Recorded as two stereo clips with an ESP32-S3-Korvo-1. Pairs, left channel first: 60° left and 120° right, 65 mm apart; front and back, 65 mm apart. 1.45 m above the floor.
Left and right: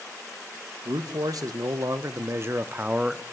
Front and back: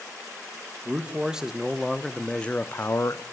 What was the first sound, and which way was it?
A man speaking, 105° right.